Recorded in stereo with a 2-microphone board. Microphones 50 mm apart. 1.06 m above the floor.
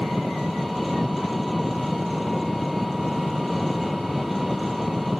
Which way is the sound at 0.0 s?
Centre (ahead or behind).